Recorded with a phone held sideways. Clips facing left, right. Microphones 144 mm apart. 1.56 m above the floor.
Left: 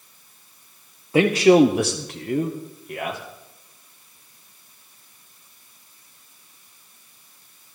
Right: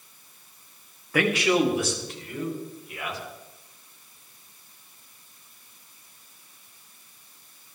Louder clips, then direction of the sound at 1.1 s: Left 8 dB; 25° left (ahead or behind).